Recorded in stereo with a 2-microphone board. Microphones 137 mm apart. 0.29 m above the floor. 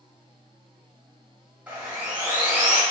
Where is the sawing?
10° right (ahead or behind), 1.0 m.